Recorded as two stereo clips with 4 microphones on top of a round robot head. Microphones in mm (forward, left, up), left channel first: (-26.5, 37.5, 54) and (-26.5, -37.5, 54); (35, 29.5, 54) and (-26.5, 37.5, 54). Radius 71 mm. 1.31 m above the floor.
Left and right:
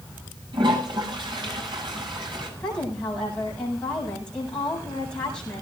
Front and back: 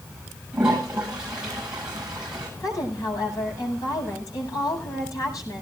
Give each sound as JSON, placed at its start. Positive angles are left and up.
{"t": 0.5, "sound": "a toilet flushing", "azimuth_deg": -105, "distance_m": 8.5}
{"t": 2.6, "sound": "a woman speaking", "azimuth_deg": 10, "distance_m": 8.0}